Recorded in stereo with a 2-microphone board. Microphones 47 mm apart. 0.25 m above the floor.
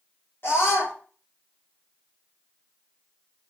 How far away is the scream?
About 7.5 m.